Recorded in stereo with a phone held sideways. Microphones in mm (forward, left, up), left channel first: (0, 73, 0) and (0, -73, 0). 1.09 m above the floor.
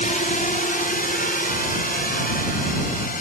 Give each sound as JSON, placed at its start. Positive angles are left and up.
{"t": 0.0, "sound": "a drone", "side_deg": 65}